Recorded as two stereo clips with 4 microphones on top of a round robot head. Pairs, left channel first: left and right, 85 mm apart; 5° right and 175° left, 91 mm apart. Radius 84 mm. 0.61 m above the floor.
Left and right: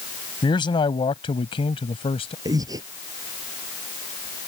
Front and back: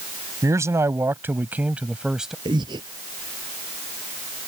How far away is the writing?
I don't hear writing.